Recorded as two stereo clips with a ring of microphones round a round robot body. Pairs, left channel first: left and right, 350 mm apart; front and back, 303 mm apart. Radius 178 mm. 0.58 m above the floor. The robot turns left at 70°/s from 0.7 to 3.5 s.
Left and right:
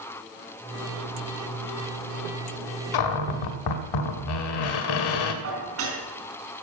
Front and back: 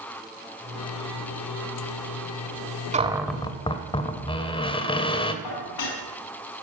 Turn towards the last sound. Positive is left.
turn(degrees=-35)